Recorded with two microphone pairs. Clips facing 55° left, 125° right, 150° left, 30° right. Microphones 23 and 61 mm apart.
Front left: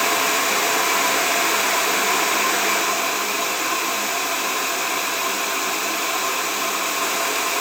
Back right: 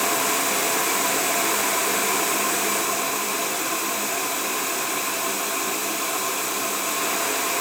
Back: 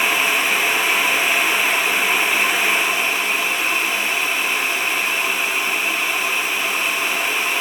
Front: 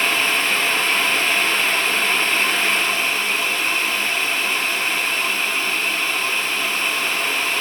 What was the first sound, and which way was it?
Only background noise.